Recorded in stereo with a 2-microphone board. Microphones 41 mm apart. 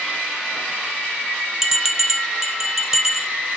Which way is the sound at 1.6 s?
10° right (ahead or behind).